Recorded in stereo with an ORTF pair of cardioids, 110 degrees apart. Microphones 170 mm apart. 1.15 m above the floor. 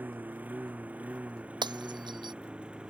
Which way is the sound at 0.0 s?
10° right.